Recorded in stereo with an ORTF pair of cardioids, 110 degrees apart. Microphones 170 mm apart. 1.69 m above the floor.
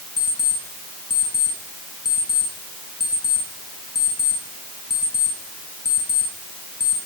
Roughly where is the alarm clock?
Ahead.